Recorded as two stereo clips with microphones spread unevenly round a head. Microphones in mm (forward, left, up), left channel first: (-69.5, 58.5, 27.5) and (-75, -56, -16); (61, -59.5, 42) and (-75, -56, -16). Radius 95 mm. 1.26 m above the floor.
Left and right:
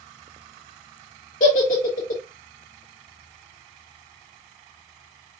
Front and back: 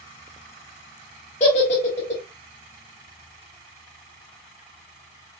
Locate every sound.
1.4 s a giggle: 55° left, 1.6 m